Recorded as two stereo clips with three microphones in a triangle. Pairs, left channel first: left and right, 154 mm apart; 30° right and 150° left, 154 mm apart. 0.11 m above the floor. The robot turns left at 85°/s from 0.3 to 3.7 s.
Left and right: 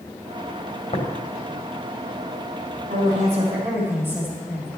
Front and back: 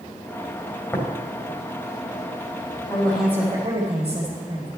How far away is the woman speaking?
About 4 m.